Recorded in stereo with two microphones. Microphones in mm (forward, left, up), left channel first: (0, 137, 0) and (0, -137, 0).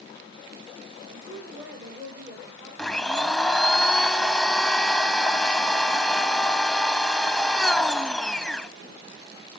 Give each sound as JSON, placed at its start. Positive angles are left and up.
{"t": 1.1, "sound": "a woman speaking", "side_deg": -40, "distance_m": 5.0}
{"t": 2.8, "sound": "a blender", "side_deg": 5, "distance_m": 0.5}